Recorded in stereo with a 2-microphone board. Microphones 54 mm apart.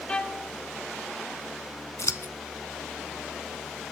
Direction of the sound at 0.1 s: 20° left (ahead or behind).